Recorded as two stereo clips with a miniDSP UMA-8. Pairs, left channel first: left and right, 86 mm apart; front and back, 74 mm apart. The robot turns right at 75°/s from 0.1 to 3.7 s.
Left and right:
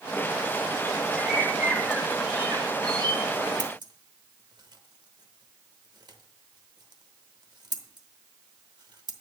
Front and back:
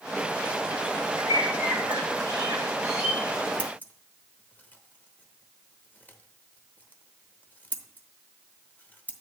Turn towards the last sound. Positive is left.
turn(degrees=-65)